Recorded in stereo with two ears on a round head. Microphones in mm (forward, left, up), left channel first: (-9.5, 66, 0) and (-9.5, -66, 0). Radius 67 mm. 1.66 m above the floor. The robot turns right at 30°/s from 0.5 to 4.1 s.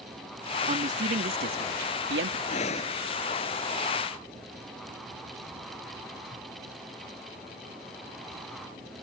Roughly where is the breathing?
Left.